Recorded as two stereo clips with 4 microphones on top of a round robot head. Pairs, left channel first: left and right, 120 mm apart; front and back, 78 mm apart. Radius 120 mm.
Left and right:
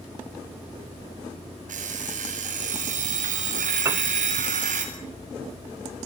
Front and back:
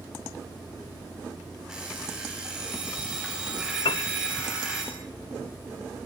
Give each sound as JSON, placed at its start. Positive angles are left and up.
{"t": 1.7, "sound": "an alarm clock", "azimuth_deg": -95, "distance_m": 8.0}
{"t": 3.9, "sound": "a piano", "azimuth_deg": -20, "distance_m": 0.9}